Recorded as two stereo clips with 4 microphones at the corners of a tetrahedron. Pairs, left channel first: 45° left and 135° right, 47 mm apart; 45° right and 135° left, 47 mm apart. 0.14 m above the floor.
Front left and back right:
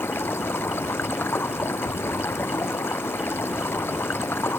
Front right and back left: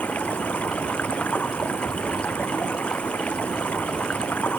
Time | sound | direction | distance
0.0 | running water | 10° left | ?